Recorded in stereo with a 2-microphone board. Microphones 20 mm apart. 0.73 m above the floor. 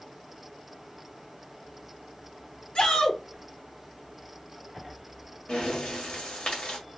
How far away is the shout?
About 2.5 m.